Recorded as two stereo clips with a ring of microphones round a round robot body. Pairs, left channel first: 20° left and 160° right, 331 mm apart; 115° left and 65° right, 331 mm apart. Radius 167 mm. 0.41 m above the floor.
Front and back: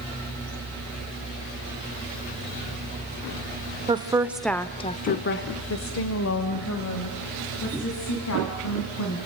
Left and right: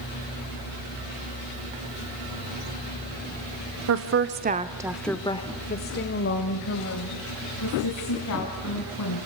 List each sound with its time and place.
3.9 s a woman speaking: 90° right, 1.3 m; by 9.3 s 70° left, 4.5 m